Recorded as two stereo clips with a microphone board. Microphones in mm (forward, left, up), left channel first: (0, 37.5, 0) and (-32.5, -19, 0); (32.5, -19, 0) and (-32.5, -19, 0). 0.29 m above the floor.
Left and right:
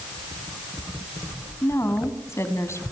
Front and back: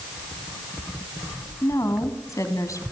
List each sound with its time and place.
1.6 s a woman speaking: 25° left, 2.5 m